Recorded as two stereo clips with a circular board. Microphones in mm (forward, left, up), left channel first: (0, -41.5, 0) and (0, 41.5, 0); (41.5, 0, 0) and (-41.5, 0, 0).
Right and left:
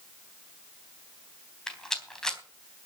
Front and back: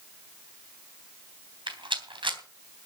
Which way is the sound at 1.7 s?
175° right.